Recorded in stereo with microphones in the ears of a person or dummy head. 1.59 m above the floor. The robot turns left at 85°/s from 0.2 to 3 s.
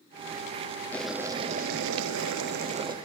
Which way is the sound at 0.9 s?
10° left.